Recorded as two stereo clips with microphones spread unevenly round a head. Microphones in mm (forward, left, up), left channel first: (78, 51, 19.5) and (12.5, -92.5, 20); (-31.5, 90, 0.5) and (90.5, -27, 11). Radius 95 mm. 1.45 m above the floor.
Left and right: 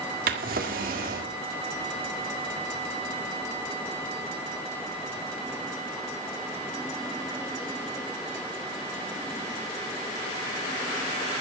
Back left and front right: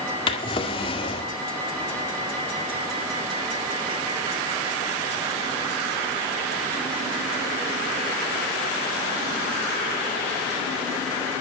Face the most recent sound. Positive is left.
turn(degrees=-160)